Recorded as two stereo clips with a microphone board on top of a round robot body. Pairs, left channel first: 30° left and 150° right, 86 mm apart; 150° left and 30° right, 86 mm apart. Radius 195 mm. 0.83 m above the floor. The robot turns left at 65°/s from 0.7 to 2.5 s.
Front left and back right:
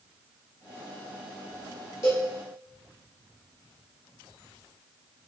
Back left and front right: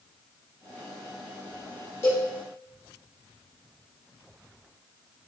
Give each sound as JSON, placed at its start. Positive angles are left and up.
{"t": 2.0, "sound": "a cowbell", "azimuth_deg": 85, "distance_m": 1.1}